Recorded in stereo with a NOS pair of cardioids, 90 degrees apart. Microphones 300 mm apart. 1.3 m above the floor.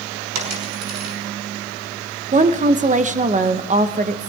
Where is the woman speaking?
25° right, 1.1 m.